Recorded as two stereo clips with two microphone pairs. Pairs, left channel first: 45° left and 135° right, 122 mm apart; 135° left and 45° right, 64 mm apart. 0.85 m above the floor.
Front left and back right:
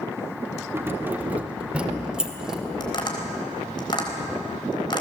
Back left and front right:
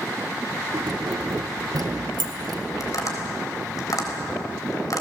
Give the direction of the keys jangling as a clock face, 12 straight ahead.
2 o'clock.